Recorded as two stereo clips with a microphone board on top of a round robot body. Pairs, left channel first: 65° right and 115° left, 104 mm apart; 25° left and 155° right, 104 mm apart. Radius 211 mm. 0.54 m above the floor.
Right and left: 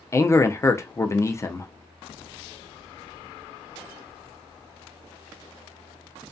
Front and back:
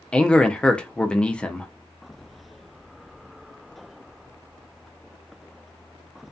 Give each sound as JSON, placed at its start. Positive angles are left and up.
{"t": 0.1, "sound": "a man speaking", "azimuth_deg": -50, "distance_m": 0.6}